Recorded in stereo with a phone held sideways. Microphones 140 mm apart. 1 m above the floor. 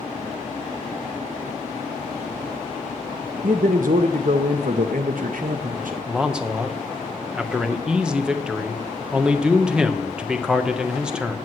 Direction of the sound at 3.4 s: 70° right (ahead or behind).